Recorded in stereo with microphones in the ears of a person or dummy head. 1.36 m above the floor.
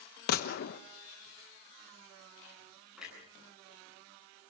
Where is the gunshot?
60° left (ahead or behind), 1.2 m.